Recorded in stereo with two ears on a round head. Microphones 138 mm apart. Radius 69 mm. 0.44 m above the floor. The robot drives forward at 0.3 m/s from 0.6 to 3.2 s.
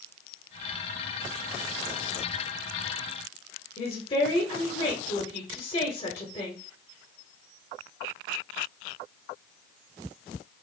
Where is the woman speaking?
35° left (ahead or behind), 1.4 m.